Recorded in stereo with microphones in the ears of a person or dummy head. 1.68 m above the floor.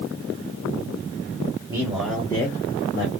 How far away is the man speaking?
About 1.5 m.